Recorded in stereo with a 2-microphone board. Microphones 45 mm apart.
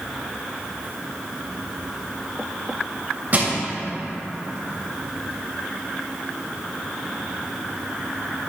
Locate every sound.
3.3 s crushing: 35° right (ahead or behind), 2.5 m